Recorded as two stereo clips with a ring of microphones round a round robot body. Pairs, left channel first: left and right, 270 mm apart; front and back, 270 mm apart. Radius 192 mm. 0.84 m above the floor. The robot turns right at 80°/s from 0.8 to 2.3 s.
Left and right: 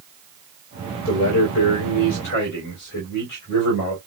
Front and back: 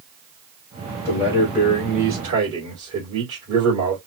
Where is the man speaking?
55° left, 2.5 m; by 4.0 s 155° left, 2.5 m.